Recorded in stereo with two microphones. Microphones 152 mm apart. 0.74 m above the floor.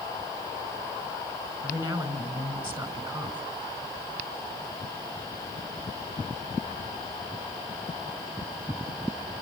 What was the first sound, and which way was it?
A man speaking, 30° right (ahead or behind).